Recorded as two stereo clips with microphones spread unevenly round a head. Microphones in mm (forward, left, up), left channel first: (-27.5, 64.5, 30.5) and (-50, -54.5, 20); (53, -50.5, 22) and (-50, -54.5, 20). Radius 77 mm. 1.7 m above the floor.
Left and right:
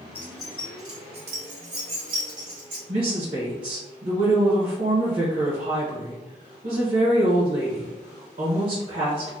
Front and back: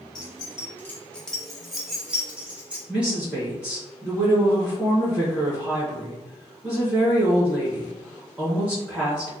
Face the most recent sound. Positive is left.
turn(degrees=-100)